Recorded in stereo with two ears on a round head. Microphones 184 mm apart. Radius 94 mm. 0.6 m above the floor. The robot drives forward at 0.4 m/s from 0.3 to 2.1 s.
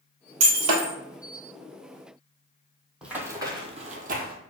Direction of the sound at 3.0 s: 5° right (ahead or behind).